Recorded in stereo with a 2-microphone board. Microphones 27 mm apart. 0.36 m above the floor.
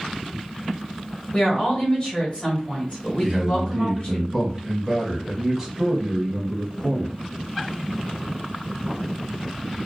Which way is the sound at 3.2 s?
5° right (ahead or behind).